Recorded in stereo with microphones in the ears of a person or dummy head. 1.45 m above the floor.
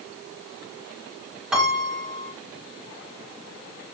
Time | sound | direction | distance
1.5 | a piano | 5° right (ahead or behind) | 5.5 m